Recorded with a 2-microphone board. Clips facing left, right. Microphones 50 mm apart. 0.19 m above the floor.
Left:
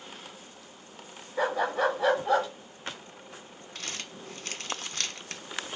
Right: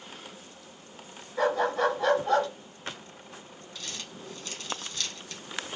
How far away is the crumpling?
About 0.7 m.